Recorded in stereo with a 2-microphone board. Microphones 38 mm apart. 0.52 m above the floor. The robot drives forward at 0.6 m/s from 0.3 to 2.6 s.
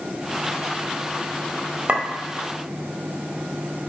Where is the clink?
40° right (ahead or behind), 1.2 m; by 2.0 s 35° right (ahead or behind), 1.3 m.